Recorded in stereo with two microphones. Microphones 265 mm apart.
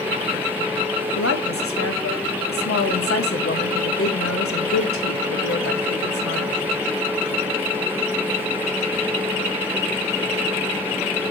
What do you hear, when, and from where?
1.1 s a woman speaking: 55° left (ahead or behind), 1.7 m